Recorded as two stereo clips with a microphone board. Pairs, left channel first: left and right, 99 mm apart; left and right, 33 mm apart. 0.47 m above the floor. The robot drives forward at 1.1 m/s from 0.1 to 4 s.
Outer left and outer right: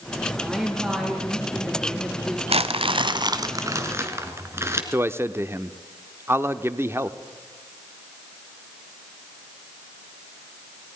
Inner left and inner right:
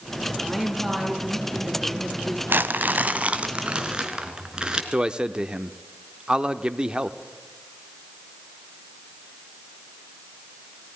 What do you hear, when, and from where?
0.4 s a woman speaking: 5° right (ahead or behind), 6.5 m; by 2.4 s 10° right (ahead or behind), 4 m
2.5 s crumpling: 90° right, 0.9 m; by 4.8 s 30° right (ahead or behind), 1.9 m
4.9 s a man speaking: 25° right (ahead or behind), 0.7 m